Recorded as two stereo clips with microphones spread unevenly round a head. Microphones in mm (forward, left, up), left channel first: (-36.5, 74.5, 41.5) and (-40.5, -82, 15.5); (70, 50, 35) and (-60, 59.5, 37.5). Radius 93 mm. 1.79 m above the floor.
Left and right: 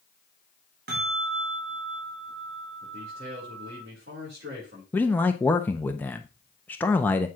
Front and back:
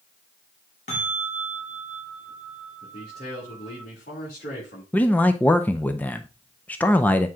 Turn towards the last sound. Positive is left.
turn(degrees=55)